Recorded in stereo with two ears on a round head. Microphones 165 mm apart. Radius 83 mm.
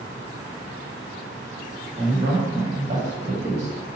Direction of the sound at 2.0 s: 45° right (ahead or behind).